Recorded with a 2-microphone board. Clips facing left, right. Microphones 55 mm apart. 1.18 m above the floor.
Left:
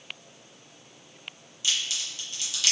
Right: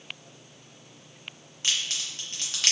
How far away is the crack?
About 0.8 m.